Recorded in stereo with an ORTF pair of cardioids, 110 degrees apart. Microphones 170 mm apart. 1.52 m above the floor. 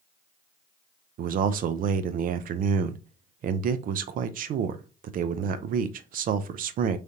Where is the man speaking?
55° right, 0.6 m.